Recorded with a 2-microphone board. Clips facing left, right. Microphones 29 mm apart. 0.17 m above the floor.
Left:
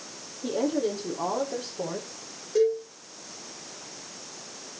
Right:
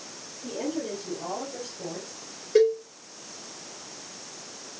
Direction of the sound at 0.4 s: 80° left.